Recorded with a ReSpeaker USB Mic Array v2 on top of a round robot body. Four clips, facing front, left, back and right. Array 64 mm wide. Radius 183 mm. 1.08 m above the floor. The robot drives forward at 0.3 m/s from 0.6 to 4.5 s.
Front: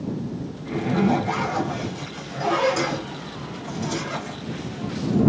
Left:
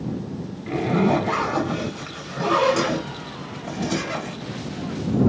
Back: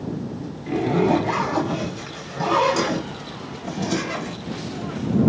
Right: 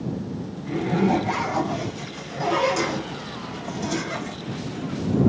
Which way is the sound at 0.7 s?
100° left.